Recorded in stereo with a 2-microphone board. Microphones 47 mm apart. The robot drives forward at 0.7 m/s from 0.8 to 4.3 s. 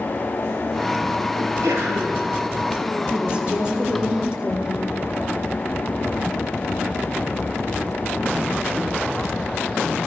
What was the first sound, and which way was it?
A sneeze, 75° right (ahead or behind).